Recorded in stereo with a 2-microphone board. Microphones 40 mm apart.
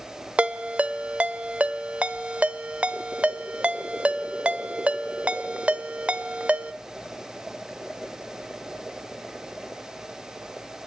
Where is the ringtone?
35° right (ahead or behind), 0.7 m.